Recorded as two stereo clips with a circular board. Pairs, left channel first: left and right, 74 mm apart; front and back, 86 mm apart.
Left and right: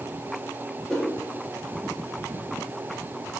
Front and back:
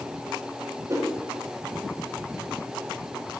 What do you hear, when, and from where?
0.9 s a whoosh: 165° left, 1.4 m